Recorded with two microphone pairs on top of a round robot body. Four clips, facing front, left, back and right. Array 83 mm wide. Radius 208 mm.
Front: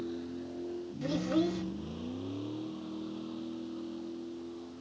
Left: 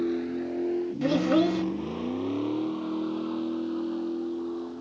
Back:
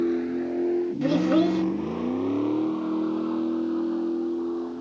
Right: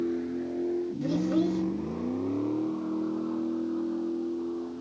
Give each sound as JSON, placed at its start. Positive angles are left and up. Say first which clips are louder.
{"t": 0.0, "sound": "a vehicle", "louder": "left 2 dB, back 14 dB", "azimuth_deg": 160}
{"t": 1.0, "sound": "a child speaking", "louder": "left 4 dB, back 8 dB", "azimuth_deg": 135}